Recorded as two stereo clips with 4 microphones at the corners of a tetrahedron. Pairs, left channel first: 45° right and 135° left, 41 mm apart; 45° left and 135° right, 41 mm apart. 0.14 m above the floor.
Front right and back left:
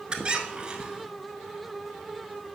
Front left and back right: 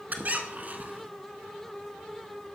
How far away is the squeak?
About 0.7 m.